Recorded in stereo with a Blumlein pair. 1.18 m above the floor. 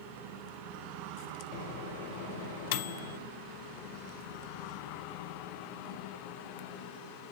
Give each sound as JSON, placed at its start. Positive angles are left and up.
{"t": 1.5, "sound": "a microwave", "azimuth_deg": 55, "distance_m": 0.5}